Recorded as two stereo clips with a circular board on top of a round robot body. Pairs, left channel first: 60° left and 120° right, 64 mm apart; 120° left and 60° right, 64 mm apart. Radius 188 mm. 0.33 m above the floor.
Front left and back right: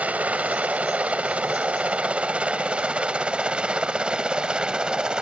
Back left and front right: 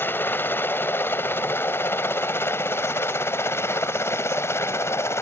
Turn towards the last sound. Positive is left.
turn(degrees=165)